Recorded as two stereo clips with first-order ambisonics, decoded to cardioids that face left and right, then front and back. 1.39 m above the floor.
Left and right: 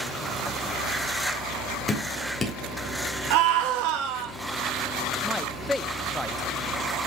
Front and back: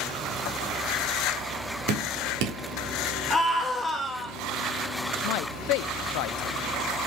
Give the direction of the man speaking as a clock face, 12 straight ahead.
12 o'clock.